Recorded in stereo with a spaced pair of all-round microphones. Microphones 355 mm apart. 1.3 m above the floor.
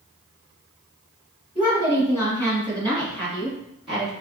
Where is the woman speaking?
5° right (ahead or behind), 1.6 m; by 4.1 s 15° right (ahead or behind), 3 m.